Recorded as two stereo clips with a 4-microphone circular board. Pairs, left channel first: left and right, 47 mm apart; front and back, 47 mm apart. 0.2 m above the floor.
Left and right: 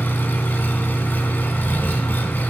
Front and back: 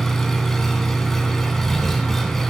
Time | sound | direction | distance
0.0 | an engine running | 80° left | 0.9 m